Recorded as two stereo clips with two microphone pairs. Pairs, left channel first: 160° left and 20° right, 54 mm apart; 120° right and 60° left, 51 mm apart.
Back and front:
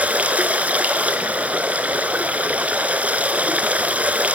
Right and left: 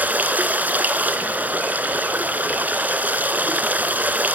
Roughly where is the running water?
Ahead left.